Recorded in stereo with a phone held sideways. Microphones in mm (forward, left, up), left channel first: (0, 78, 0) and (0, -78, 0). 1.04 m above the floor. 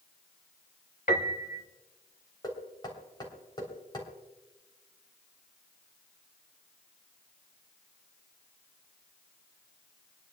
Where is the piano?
65° left (ahead or behind), 1.3 m.